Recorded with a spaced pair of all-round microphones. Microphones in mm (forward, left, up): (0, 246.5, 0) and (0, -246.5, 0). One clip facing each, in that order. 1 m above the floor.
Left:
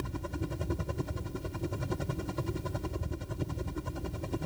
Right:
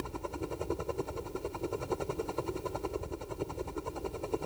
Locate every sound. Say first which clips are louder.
0.0 s a helicopter: left 1 dB; 35° left (ahead or behind)